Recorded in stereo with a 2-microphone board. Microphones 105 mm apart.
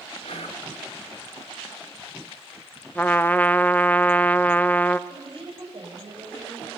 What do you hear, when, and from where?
0.2 s whispering: 65° left (ahead or behind), 5.5 m
3.0 s a trumpet: 15° left (ahead or behind), 0.9 m
5.1 s a woman speaking: 50° right (ahead or behind), 9.5 m